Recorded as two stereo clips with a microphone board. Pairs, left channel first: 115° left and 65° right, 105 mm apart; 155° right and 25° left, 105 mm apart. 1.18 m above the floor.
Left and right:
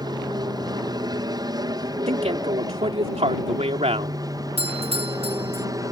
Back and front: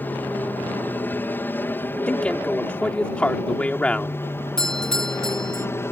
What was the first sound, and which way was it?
An aircraft, 90° right.